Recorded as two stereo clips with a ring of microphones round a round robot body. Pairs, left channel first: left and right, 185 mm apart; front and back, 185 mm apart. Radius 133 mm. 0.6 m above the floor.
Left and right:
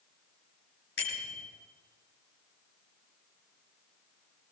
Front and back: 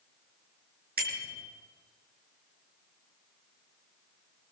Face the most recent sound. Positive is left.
turn(degrees=145)